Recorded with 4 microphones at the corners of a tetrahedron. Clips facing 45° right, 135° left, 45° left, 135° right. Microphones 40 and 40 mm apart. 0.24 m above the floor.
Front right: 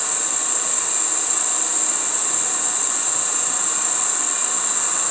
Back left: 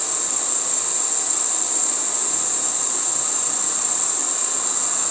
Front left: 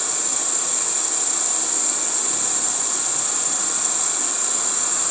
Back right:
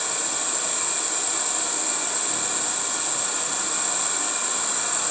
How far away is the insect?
About 1.2 m.